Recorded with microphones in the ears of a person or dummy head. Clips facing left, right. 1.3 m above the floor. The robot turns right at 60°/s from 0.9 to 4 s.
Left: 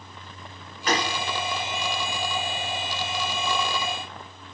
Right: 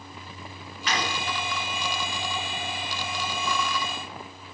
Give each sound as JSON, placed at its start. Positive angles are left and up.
{"t": 0.9, "sound": "a gunshot", "side_deg": 35, "distance_m": 3.0}